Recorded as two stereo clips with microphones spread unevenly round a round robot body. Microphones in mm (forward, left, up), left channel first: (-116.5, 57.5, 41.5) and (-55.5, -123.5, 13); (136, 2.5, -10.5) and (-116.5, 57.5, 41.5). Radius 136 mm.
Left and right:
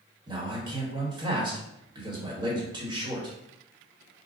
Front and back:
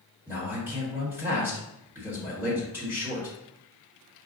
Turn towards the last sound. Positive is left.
turn(degrees=-100)